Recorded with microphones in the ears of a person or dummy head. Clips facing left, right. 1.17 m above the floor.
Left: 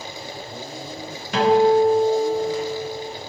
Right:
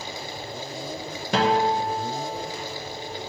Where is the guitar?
35° right (ahead or behind), 0.7 m.